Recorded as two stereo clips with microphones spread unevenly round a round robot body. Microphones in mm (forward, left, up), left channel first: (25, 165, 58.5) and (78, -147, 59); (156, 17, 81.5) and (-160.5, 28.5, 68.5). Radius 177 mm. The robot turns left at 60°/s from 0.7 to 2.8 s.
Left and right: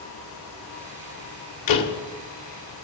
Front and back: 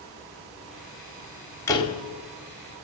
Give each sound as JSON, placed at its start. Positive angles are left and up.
{"t": 1.7, "sound": "a door slam", "azimuth_deg": 80, "distance_m": 1.6}